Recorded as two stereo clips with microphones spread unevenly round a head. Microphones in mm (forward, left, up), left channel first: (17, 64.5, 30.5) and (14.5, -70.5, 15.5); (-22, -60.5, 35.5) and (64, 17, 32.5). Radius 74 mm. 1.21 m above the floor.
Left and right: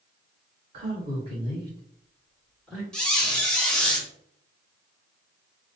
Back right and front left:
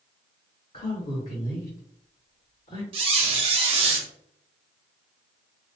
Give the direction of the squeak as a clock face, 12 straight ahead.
12 o'clock.